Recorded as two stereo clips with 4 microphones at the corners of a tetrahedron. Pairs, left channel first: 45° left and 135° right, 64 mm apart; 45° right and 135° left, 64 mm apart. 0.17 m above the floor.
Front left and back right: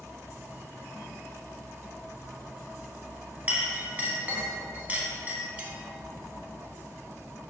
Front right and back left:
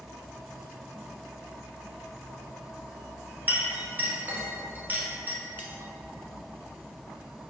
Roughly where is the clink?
Behind.